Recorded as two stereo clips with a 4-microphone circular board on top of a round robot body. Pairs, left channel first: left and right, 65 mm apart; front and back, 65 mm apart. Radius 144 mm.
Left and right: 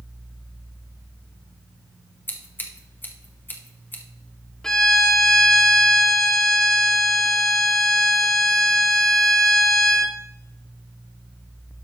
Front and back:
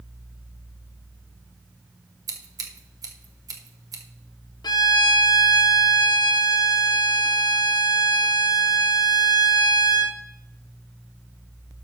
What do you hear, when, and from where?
2.3 s scissors: 150° left, 1.3 m
4.6 s a violin: 10° left, 0.6 m